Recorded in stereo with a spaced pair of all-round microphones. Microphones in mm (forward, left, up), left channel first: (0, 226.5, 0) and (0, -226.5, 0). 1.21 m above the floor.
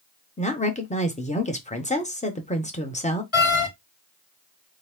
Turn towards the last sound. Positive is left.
turn(degrees=90)